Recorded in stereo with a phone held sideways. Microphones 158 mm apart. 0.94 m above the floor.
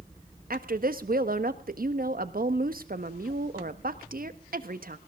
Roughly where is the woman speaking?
Right.